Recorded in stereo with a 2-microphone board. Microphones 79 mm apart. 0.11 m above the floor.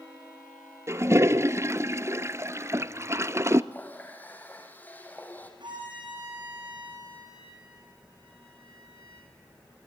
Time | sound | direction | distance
0.9 | a toilet flushing | 35° right (ahead or behind) | 0.5 m
3.7 | a running tap | 20° left (ahead or behind) | 2.5 m
5.6 | a violin | 70° right (ahead or behind) | 7 m